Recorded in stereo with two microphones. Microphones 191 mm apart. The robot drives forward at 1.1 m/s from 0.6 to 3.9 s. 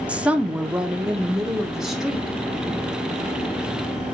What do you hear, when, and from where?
0.1 s a woman speaking: 5° right (ahead or behind), 0.7 m; by 2.4 s centre (ahead or behind), 2.5 m